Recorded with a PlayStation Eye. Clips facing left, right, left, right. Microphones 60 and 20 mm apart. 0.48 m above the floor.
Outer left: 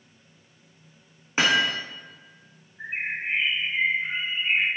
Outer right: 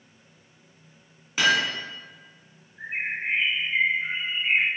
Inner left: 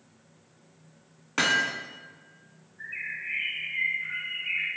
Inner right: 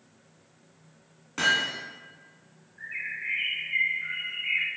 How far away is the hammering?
About 1.5 m.